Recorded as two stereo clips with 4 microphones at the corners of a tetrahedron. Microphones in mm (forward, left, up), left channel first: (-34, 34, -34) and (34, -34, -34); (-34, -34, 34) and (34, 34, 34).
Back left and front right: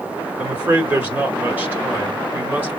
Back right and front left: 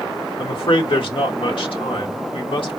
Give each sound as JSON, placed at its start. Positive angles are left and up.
{"t": 0.4, "sound": "a man speaking", "azimuth_deg": -115, "distance_m": 1.3}